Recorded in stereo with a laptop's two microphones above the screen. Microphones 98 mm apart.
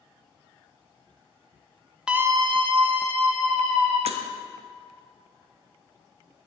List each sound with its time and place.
2.1 s a scream: 5° right (ahead or behind), 0.6 m; by 4.0 s 80° right, 2.5 m
4.1 s breaking glass: 80° right, 0.6 m